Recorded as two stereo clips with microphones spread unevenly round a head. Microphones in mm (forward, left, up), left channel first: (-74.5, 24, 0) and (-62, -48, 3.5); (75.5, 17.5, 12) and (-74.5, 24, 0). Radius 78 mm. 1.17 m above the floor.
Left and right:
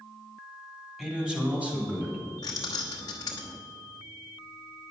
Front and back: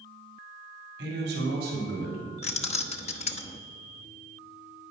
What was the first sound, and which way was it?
A man speaking, 160° right.